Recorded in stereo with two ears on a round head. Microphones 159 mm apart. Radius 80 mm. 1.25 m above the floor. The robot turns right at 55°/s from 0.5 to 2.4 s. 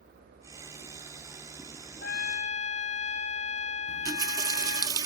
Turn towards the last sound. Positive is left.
turn(degrees=-25)  # may be behind; listen again after turning